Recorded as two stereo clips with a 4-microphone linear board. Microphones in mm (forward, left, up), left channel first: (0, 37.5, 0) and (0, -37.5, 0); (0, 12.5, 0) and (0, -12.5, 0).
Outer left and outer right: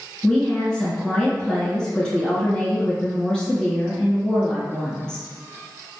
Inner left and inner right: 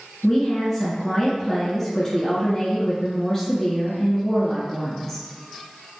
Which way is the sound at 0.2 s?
5° left (ahead or behind).